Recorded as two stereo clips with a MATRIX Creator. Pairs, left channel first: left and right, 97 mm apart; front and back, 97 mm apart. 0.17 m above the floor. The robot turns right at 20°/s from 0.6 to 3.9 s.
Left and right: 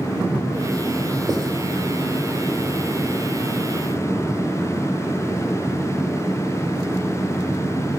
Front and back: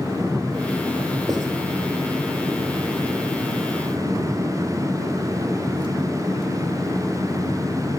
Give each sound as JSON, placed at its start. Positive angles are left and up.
{"t": 1.3, "sound": "writing", "azimuth_deg": -130, "distance_m": 1.1}